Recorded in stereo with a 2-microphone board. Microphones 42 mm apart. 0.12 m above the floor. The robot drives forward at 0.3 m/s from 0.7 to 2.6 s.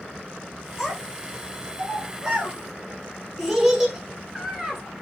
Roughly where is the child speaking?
Centre.